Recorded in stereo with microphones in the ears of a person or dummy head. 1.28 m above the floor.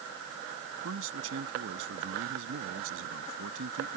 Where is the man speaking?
85° right.